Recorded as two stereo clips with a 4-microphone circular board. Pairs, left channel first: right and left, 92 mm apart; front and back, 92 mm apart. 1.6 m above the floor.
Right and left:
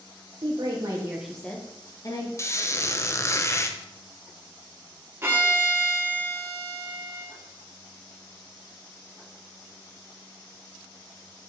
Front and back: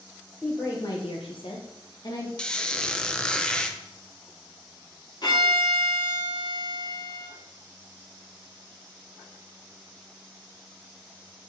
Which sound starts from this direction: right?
A squeak, at 2.4 s.